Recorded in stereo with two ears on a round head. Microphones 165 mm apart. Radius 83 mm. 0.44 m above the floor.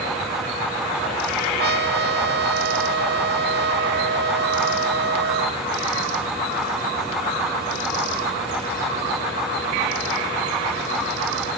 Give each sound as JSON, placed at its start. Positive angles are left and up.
{"t": 1.6, "sound": "a trumpet", "side_deg": -60}